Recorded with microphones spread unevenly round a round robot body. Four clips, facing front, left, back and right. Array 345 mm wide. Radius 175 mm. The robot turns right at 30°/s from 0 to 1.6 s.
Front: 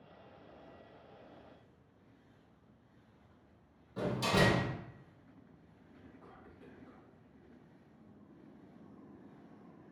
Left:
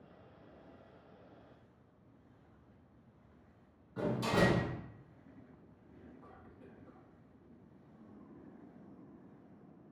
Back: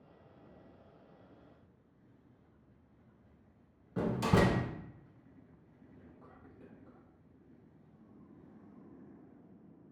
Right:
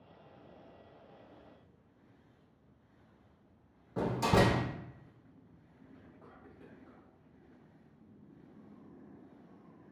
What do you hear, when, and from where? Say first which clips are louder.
4.0 s a door slam: right 3 dB, back 2 dB; 130° right, 0.5 m
5.9 s whispering: left 2 dB, front 2 dB; 165° right, 1.5 m